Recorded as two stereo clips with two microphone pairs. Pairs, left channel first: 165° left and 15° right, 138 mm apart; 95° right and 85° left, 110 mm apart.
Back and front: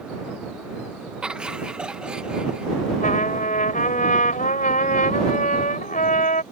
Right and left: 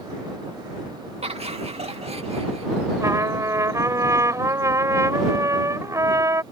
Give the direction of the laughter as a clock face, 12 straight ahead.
10 o'clock.